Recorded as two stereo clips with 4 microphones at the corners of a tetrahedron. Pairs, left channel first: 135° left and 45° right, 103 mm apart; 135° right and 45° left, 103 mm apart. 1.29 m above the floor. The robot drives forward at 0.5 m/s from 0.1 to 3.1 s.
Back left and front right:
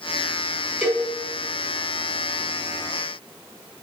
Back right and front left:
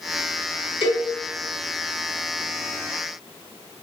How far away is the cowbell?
About 1.1 m.